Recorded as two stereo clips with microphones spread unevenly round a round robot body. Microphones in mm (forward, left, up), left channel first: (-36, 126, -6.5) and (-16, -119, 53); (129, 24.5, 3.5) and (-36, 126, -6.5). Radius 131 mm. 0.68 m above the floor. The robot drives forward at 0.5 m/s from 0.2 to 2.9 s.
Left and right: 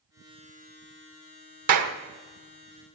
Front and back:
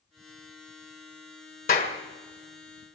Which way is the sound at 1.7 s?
100° right.